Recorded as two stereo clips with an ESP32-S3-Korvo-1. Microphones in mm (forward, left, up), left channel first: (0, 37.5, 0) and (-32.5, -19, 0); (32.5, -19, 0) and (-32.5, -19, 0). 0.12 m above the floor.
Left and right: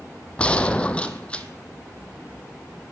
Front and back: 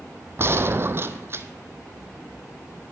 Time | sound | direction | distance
0.4 | a gunshot | 135° left | 0.7 m